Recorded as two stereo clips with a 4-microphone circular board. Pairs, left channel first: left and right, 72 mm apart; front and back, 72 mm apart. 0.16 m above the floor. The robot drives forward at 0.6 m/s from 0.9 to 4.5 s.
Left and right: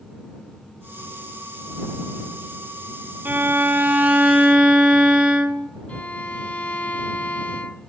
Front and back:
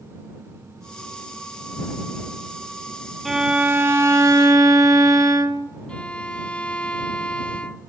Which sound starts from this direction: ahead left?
A violin, at 5.9 s.